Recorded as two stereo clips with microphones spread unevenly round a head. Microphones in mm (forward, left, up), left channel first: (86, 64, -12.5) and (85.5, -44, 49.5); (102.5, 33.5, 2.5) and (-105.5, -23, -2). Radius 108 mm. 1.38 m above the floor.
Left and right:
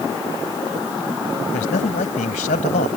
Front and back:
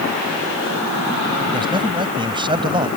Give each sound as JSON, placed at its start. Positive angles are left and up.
{"t": 1.5, "sound": "a man speaking", "azimuth_deg": 125}